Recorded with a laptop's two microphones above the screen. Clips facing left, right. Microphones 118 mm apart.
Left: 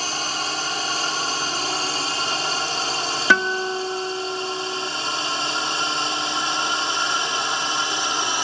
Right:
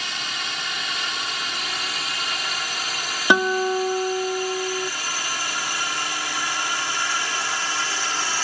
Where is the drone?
30° left (ahead or behind); by 8.4 s 20° left (ahead or behind).